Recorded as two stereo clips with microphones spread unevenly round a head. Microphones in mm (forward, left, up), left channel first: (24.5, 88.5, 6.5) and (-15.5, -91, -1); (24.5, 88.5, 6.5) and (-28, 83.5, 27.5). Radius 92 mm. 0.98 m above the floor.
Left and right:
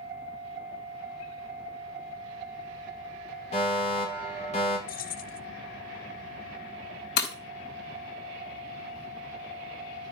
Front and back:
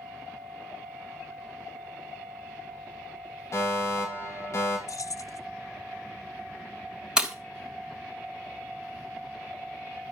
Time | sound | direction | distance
3.5 | a fire alarm | 20° left | 5 m
4.9 | keys jangling | 30° left | 0.6 m
7.2 | breaking glass | 115° left | 3 m